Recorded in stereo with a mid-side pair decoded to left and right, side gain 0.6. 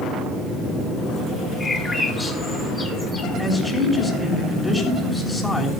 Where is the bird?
20° left, 6 m.